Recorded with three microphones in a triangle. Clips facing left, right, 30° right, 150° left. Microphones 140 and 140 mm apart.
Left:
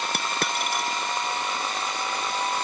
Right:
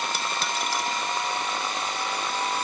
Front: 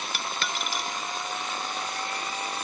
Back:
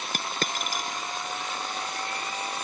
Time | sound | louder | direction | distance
0.1 | a dropped coin | left 1 dB, back 3 dB | 110° left | ?